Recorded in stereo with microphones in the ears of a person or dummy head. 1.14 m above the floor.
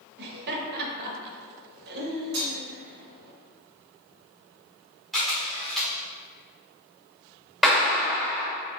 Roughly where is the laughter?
Right.